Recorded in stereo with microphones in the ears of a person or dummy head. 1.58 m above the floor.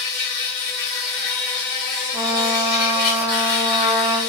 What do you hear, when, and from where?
0.0 s an insect: 10° right (ahead or behind), 1.1 m
2.1 s a trumpet: 15° right (ahead or behind), 0.9 m